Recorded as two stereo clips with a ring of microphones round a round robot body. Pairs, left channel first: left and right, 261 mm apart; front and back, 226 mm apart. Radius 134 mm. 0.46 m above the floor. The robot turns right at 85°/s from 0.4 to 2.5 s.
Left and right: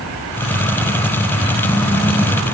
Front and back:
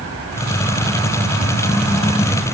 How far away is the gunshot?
I don't hear a gunshot.